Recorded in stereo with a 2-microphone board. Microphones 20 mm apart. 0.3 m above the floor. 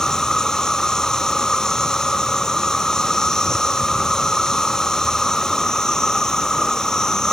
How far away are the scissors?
I don't hear scissors.